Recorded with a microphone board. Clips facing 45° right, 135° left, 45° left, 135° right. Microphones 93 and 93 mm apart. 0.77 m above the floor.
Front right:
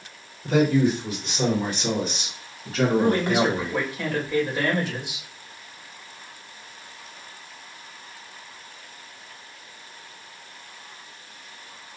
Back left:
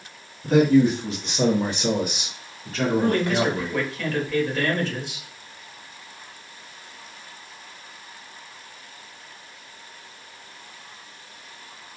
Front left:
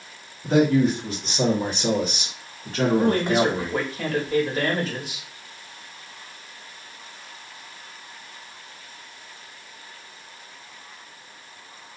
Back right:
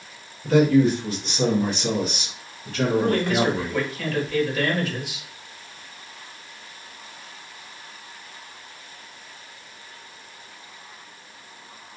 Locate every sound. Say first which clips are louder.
0.4 s a man speaking: back left 3 dB, back right 2 dB; 110° left, 1.5 m; by 3.8 s 15° right, 1.1 m
3.0 s a man speaking: back left 1 dB, front left 1 dB; 20° left, 1.1 m